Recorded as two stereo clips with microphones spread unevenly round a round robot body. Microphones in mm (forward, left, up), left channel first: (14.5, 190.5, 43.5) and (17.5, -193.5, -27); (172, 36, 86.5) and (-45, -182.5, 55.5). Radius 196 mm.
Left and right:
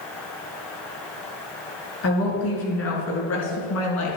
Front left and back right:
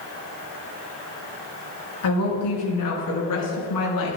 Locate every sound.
2.0 s a woman speaking: 35° left, 5.5 m; by 4.2 s 40° left, 4.5 m